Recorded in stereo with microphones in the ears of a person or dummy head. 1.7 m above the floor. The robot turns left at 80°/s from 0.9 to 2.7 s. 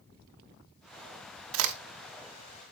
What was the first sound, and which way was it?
A crack, 80° right.